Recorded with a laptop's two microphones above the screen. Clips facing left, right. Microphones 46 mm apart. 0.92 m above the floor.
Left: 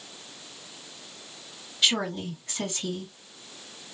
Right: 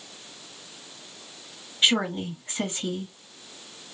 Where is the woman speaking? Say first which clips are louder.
Right 3 dB; 30° right (ahead or behind), 1.9 m.